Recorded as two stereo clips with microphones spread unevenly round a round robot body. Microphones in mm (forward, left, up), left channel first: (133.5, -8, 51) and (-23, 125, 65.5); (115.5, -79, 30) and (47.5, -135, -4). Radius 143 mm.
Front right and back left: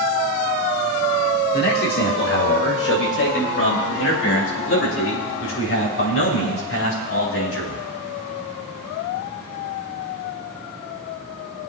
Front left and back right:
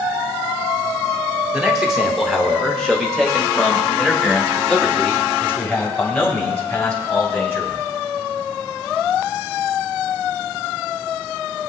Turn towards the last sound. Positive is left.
turn(degrees=-35)